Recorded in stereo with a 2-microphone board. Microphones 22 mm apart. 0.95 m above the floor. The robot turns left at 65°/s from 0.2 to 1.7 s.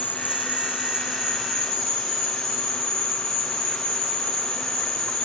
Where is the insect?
80° right, 5 m; by 5.3 s straight behind, 5 m.